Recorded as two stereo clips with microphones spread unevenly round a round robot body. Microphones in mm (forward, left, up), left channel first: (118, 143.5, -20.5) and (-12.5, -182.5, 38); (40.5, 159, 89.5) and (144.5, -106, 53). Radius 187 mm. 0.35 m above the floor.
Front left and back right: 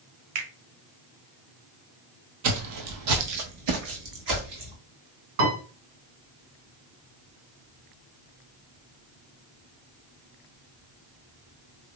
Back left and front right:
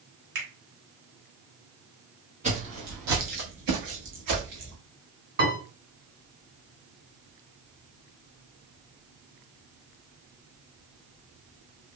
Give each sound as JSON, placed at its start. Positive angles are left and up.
{"t": 0.3, "sound": "a finger snap", "azimuth_deg": -110, "distance_m": 1.9}
{"t": 2.4, "sound": "footsteps", "azimuth_deg": -145, "distance_m": 0.5}
{"t": 5.4, "sound": "a piano", "azimuth_deg": -115, "distance_m": 2.0}